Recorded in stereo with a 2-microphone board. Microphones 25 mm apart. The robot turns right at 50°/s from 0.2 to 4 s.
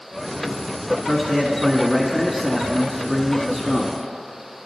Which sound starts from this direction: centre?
A man speaking, at 1.1 s.